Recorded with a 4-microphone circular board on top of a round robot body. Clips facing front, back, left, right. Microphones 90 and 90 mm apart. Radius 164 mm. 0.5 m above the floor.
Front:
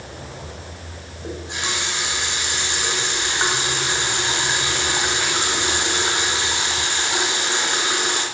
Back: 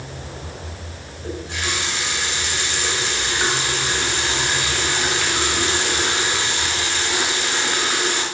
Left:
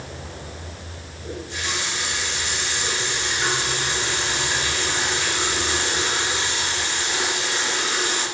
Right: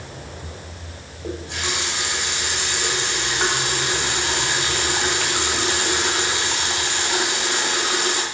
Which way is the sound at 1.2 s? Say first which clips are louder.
Back 1 dB, right 2 dB; 70° right.